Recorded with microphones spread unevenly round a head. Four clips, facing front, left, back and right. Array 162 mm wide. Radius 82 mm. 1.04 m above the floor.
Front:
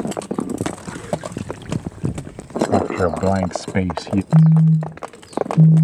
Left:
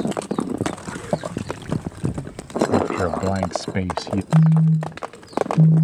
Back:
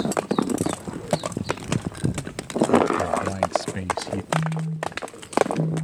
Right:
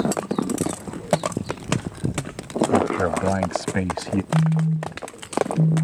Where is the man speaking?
10° right; by 4.2 s 20° right.